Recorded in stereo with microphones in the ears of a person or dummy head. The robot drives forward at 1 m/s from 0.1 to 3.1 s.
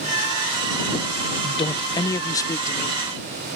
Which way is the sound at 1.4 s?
30° left (ahead or behind).